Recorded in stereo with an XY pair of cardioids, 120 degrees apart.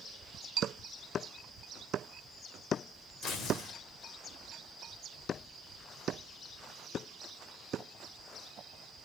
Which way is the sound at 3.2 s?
70° left.